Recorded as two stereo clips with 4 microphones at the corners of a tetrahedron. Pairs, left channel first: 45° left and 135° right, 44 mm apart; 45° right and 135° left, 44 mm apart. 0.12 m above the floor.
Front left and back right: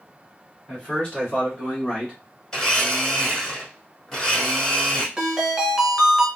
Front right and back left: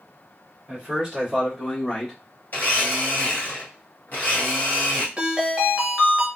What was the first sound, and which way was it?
A man speaking, 85° left.